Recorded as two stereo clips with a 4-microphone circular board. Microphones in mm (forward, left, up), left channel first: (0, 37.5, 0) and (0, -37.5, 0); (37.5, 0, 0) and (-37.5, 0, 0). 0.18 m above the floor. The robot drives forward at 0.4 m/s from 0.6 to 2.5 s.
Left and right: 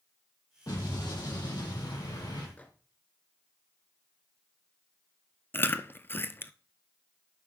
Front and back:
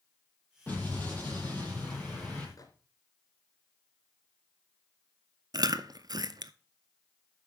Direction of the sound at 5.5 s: 155° left.